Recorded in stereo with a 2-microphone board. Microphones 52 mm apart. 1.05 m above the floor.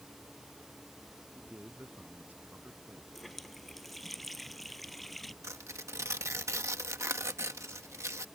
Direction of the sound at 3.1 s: Centre (ahead or behind).